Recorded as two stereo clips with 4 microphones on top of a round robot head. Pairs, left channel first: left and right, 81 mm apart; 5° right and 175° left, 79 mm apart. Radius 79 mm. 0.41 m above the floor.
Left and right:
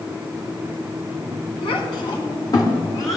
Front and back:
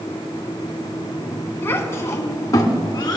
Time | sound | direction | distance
1.6 | a child speaking | 60° left | 2 m